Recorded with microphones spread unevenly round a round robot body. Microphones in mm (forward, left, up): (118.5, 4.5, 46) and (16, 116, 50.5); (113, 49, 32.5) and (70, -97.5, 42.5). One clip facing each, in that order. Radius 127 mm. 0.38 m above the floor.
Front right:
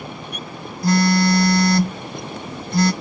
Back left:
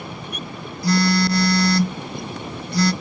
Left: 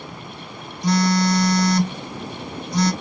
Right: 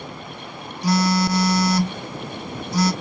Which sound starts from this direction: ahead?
A phone buzzing, at 0.8 s.